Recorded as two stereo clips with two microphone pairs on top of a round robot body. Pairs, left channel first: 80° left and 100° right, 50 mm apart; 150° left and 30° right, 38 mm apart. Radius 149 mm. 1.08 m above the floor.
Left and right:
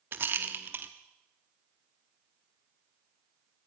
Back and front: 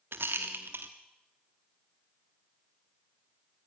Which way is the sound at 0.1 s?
55° right.